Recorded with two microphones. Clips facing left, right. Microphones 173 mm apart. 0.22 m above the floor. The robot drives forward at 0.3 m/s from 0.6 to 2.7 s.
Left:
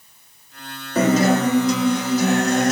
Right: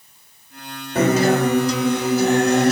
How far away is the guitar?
About 1.5 m.